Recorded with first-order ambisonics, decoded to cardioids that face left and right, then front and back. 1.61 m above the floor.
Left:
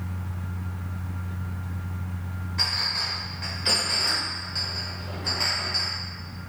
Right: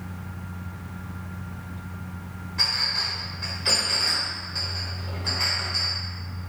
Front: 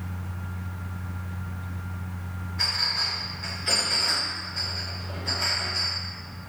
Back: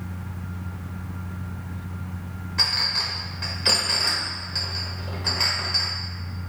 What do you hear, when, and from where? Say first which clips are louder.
2.6 s a clink: right 2 dB, back 3 dB; 175° left, 1.2 m